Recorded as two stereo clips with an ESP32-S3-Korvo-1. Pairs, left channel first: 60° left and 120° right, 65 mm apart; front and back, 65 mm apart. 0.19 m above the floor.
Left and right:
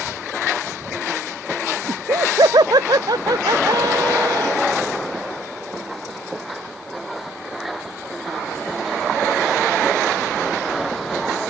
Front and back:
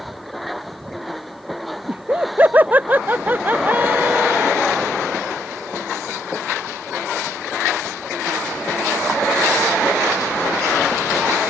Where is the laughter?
115° right.